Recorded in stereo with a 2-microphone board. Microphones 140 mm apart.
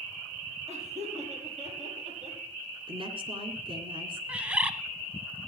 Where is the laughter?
55° right (ahead or behind), 6 m; by 2.4 s 65° right (ahead or behind), 7 m.